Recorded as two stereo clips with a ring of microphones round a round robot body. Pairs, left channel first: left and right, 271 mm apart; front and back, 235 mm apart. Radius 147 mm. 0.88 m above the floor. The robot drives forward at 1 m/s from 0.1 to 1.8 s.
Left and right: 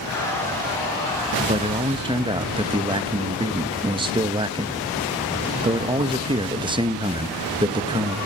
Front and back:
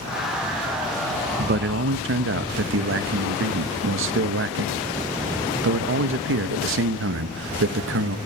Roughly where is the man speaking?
Behind right.